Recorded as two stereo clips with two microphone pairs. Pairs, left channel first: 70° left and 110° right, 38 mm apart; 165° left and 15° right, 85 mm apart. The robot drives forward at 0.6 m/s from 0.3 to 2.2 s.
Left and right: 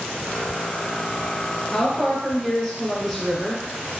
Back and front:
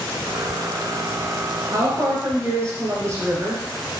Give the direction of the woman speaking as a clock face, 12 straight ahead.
12 o'clock.